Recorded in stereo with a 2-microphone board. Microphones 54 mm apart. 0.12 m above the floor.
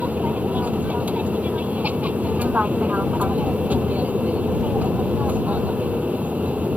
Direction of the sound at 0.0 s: 30° right (ahead or behind).